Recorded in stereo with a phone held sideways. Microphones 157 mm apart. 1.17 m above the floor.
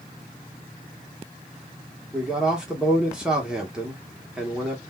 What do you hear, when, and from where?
2.1 s a man speaking: 5° right (ahead or behind), 1.0 m